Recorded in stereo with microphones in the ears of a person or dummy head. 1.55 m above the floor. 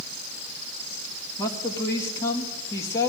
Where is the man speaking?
15° left (ahead or behind), 1.9 m.